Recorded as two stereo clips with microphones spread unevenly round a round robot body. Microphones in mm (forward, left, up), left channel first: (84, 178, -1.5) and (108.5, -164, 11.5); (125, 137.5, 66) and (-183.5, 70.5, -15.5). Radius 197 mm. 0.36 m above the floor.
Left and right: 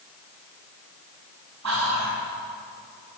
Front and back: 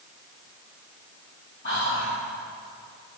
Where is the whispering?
55° right, 3 m.